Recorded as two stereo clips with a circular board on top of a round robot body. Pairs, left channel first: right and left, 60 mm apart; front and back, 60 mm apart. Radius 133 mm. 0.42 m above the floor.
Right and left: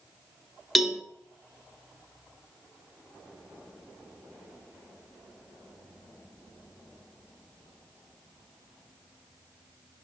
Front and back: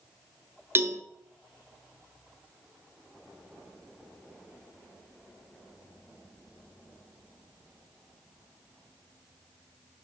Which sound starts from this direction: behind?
A cowbell, at 0.8 s.